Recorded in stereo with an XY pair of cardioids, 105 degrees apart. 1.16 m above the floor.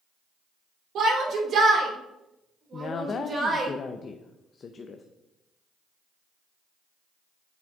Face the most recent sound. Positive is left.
turn(degrees=45)